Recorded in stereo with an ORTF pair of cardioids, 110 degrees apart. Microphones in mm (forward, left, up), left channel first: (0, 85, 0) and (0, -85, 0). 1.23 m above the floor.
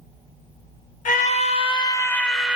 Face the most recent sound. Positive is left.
turn(degrees=-10)